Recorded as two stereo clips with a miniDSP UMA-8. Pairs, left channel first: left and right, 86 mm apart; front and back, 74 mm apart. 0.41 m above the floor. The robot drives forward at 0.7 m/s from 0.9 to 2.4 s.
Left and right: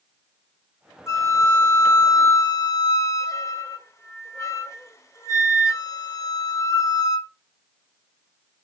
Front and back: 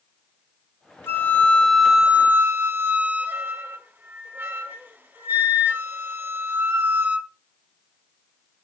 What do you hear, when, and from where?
1.1 s a flute: 50° left, 1.0 m; by 7.3 s 130° left, 0.9 m